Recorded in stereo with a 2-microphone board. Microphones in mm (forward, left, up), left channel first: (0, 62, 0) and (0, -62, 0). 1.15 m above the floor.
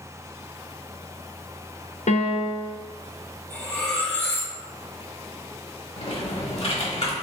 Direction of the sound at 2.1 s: 65° left (ahead or behind).